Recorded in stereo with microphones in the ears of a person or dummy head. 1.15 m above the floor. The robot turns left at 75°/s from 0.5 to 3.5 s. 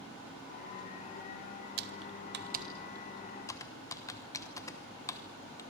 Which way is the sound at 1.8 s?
50° right (ahead or behind).